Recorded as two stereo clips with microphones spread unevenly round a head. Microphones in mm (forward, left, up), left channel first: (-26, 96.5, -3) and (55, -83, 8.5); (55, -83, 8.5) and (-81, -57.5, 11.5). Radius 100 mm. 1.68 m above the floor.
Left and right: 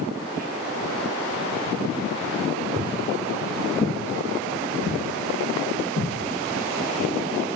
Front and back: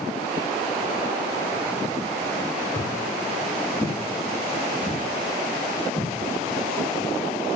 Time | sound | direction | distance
2.8 | footsteps | 5° right | 1.8 m